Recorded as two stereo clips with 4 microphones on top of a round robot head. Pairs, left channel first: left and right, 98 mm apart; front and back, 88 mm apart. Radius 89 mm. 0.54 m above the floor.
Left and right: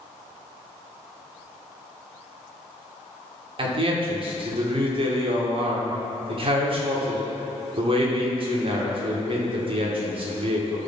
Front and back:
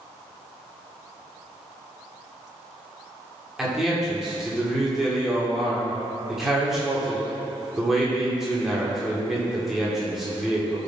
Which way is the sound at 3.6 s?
95° right.